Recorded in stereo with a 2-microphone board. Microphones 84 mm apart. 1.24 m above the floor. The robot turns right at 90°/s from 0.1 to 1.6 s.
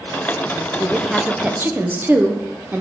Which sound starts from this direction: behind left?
A woman speaking, at 0.8 s.